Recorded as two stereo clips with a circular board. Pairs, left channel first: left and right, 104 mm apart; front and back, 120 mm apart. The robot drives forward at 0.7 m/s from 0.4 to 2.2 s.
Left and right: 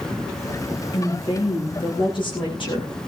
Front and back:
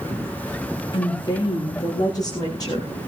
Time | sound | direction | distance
0.9 | a woman speaking | 50° left | 6.5 m